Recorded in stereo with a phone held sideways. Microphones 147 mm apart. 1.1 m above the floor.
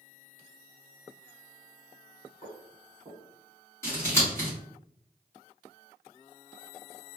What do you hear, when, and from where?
2.4 s footsteps: 35° right (ahead or behind), 1.6 m
3.8 s scissors: 15° left (ahead or behind), 1.5 m